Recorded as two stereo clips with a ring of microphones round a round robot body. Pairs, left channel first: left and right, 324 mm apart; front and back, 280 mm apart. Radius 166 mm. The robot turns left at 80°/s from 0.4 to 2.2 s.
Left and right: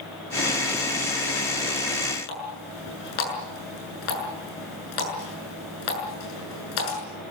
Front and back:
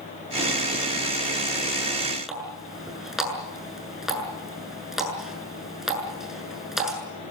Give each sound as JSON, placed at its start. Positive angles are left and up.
{"t": 2.3, "sound": "a running tap", "azimuth_deg": 90, "distance_m": 7.5}